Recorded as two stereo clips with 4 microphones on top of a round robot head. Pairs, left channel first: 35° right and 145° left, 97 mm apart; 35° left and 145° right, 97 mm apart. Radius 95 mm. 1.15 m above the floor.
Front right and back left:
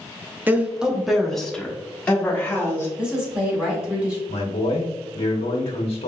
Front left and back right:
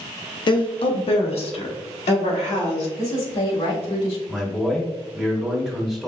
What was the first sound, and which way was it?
A woman speaking, 75° left.